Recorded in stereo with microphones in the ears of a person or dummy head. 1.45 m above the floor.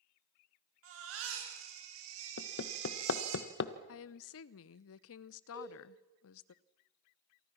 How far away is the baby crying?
About 6 m.